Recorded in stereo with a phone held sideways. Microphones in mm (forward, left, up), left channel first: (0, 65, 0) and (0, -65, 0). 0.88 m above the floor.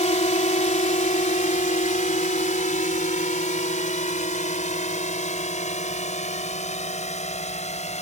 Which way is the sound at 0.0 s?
60° left (ahead or behind).